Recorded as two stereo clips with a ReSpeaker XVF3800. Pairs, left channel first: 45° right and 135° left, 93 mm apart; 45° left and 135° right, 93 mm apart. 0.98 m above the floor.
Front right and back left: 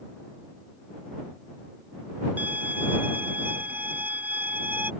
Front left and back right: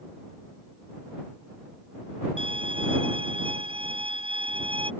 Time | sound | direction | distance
2.4 | a violin | 155° right | ?